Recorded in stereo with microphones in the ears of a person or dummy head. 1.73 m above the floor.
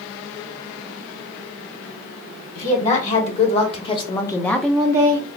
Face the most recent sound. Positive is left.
turn(degrees=-35)  # may be behind; listen again after turning